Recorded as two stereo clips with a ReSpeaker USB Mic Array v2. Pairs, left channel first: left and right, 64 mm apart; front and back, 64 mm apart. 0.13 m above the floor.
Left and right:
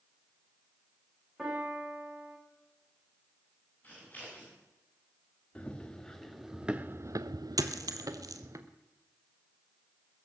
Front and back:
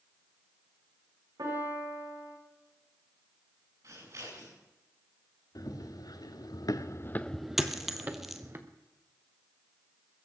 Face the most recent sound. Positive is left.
turn(degrees=-95)